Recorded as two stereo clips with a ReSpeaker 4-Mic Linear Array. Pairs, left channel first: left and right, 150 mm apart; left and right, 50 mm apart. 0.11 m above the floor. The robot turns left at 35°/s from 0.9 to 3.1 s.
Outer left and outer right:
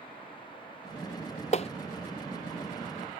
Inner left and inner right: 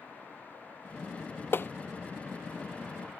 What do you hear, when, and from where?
1.5 s tapping: 50° left (ahead or behind); by 1.7 s 45° left (ahead or behind)